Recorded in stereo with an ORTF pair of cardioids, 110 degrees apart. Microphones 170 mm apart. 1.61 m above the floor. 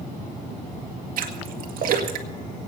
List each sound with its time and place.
1.2 s a splash: 60° right, 2.0 m